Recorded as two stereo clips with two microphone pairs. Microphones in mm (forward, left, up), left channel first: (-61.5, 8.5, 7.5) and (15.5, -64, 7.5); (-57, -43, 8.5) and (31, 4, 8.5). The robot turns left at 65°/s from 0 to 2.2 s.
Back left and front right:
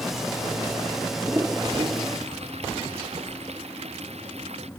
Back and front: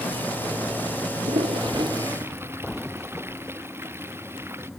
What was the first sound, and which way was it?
A toilet flushing, 30° left.